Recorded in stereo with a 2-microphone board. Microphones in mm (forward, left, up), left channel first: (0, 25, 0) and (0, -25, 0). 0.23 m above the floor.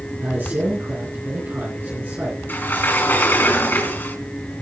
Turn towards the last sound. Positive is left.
turn(degrees=45)  # may be behind; listen again after turning